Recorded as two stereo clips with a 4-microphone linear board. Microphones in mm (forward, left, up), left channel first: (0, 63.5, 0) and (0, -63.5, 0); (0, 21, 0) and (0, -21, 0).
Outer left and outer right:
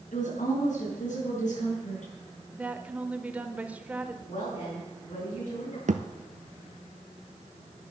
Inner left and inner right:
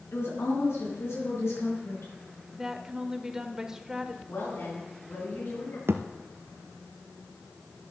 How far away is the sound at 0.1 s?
About 5 m.